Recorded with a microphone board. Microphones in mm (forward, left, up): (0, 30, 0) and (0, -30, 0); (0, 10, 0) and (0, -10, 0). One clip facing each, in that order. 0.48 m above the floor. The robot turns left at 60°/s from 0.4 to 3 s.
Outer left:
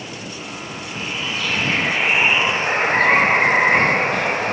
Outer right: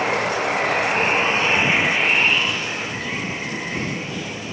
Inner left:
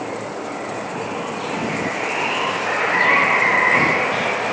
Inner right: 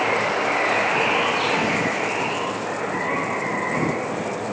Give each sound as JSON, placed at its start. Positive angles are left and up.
{"t": 0.0, "sound": "running water", "azimuth_deg": -85}